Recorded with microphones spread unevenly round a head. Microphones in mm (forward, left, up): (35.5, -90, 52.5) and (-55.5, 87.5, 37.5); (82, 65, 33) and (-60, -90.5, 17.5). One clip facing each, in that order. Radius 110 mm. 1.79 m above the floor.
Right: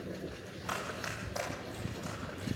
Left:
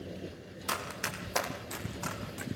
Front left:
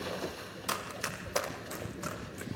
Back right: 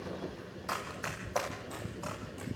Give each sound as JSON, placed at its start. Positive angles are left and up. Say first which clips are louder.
{"t": 0.7, "sound": "running footsteps", "louder": "left 1 dB, front left 2 dB", "azimuth_deg": 80, "distance_m": 3.0}